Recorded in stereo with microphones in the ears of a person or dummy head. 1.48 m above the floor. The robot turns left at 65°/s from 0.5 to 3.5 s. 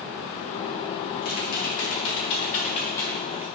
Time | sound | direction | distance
1.2 | typing on a keyboard | 130° left | 2 m